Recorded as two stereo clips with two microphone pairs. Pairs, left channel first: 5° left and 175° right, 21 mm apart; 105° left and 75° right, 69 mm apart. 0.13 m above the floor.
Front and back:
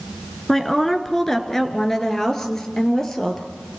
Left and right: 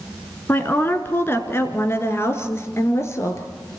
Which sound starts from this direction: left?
A woman speaking, at 0.5 s.